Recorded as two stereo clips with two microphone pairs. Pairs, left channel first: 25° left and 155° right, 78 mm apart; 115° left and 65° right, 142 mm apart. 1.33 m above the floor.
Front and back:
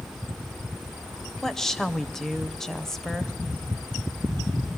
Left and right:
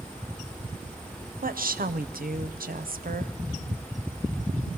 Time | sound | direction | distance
1.4 | a woman speaking | 60° right | 0.7 m